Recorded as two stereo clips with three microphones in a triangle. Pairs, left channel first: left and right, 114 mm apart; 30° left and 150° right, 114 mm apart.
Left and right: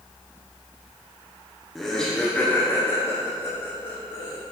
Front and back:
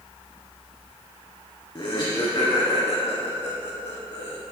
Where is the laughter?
Straight ahead, 1.4 m; by 4.4 s 70° left, 1.9 m.